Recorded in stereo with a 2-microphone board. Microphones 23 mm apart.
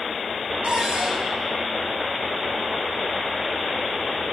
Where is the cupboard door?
60° right (ahead or behind), 2.5 m.